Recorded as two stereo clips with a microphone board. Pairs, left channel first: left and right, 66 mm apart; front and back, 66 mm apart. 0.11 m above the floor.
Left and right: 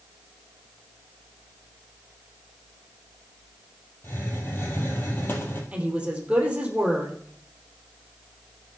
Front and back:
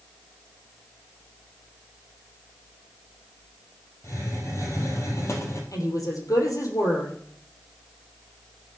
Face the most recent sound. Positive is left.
turn(degrees=-20)